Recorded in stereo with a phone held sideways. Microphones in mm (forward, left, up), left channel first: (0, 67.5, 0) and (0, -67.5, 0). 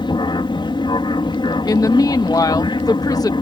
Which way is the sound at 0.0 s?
35° left (ahead or behind).